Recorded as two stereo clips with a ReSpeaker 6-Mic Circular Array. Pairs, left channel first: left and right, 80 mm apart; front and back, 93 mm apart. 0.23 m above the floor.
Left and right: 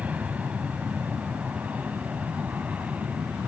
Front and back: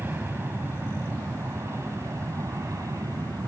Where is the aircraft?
140° right; by 3.5 s 150° right.